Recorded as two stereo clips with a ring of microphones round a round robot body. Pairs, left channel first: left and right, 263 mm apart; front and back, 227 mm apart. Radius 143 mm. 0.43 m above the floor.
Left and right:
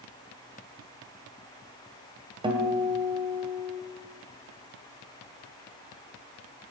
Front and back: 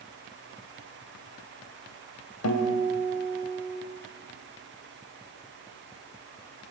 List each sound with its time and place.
2.4 s a guitar: 20° right, 2.5 m